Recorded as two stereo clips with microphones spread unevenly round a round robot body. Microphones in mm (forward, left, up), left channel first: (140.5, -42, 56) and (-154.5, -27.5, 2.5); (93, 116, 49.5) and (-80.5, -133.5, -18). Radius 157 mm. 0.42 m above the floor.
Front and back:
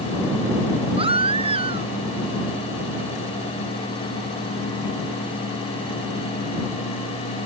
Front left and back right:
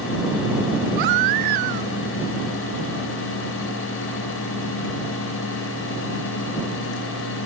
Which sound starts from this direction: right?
A baby crying, at 1.0 s.